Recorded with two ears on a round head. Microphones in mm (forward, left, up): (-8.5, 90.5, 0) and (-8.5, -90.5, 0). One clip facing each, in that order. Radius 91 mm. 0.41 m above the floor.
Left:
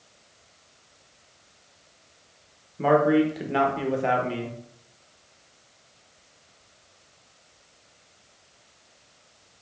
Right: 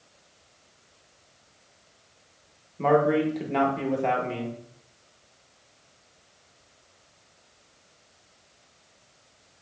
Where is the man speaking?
5° left (ahead or behind), 0.8 m.